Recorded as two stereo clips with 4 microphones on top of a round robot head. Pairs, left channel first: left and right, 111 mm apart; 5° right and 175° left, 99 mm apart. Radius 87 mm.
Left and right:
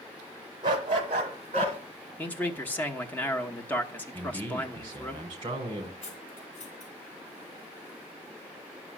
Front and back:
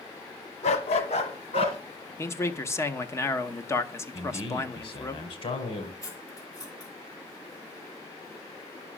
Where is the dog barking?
30° right, 1.0 m; by 1.8 s 45° right, 1.8 m.